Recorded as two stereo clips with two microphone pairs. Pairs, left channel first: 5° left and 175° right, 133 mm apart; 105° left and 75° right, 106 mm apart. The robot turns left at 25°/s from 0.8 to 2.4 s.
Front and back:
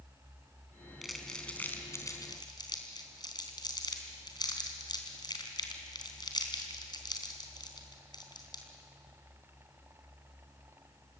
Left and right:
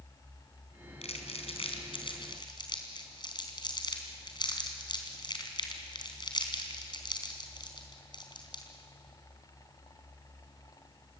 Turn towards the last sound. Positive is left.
turn(degrees=60)